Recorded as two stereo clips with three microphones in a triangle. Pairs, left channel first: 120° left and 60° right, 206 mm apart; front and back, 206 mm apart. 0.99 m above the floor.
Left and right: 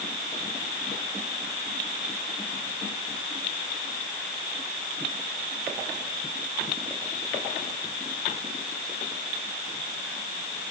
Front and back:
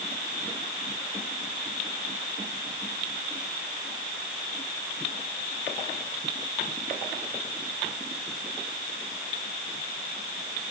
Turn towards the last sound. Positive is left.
No sound to turn to.